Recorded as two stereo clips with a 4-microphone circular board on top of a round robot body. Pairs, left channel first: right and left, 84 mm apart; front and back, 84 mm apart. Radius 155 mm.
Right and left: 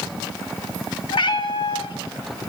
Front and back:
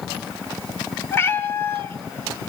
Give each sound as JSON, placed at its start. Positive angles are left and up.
{"t": 1.1, "sound": "a cat meowing", "azimuth_deg": -65, "distance_m": 1.7}